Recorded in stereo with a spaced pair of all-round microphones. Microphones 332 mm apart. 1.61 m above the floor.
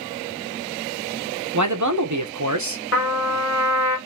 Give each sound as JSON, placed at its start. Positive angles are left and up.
{"t": 1.5, "sound": "a man speaking", "side_deg": -60, "distance_m": 1.2}
{"t": 2.9, "sound": "a trumpet", "side_deg": 45, "distance_m": 1.7}